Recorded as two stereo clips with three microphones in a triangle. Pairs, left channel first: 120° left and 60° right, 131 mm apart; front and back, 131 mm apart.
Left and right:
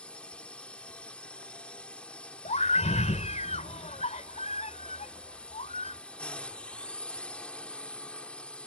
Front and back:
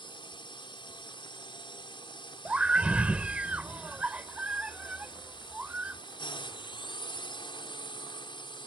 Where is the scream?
100° left.